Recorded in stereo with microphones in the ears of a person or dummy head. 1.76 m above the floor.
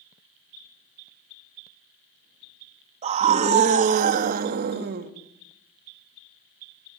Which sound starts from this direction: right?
A scream, at 3.0 s.